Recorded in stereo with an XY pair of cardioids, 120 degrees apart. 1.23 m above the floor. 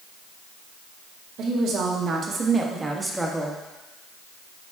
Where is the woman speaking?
60° right, 2 m; by 3.6 s 5° left, 1.5 m.